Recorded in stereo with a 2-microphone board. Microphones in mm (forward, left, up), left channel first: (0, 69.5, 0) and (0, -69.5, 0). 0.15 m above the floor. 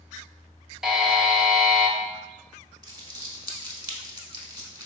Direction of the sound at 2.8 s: 30° right (ahead or behind).